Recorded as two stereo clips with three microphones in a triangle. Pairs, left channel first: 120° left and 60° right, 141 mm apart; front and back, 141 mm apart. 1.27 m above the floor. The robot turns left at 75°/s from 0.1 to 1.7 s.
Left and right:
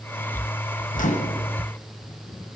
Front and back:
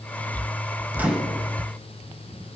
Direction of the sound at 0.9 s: 105° left.